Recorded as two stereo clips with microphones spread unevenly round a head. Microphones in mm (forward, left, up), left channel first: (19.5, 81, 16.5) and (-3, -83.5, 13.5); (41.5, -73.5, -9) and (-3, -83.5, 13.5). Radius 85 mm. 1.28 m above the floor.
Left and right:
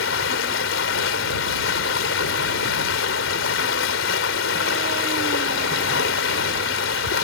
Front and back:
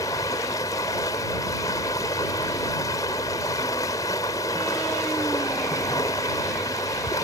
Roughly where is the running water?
Ahead left.